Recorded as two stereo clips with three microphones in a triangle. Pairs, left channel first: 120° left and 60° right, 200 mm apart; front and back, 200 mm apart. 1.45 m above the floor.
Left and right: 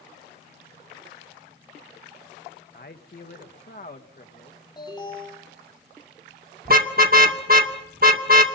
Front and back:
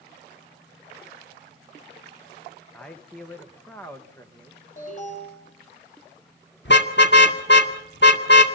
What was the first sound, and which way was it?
A man speaking, 85° left.